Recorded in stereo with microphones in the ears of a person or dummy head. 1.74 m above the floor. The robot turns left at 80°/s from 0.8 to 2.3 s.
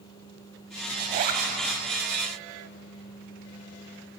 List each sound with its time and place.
1.0 s a zipper: 40° right, 2.5 m; by 1.4 s 80° right, 2.5 m